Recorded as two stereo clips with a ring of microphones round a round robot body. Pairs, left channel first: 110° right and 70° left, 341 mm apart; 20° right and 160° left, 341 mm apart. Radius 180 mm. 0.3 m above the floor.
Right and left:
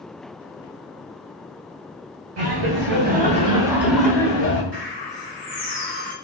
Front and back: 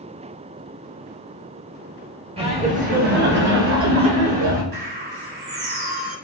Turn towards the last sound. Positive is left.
turn(degrees=135)